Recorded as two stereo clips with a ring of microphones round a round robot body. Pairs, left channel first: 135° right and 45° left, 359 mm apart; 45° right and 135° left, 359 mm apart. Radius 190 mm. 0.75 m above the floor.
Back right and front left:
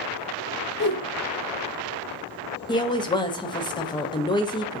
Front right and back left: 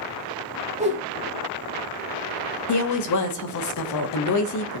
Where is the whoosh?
170° right, 1.1 m.